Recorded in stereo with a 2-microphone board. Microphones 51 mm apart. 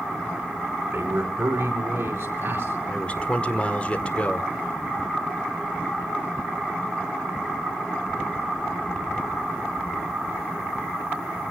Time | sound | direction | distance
0.8 | a man speaking | 65° right (ahead or behind) | 5 m
2.9 | a man speaking | 25° left (ahead or behind) | 1.7 m